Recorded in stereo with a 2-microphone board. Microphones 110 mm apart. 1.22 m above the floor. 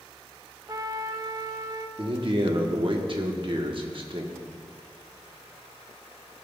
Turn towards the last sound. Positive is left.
turn(degrees=-50)  # may be behind; listen again after turning